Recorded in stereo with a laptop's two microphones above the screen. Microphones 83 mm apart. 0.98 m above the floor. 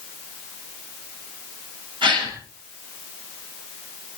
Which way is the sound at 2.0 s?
70° right (ahead or behind).